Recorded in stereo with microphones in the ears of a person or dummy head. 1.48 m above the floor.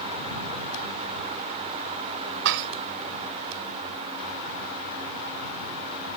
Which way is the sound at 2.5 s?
65° right (ahead or behind).